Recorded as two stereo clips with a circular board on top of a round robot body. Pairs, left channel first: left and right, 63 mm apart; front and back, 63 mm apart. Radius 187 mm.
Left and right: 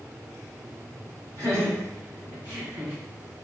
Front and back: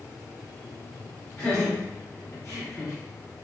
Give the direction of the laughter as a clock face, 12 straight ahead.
2 o'clock.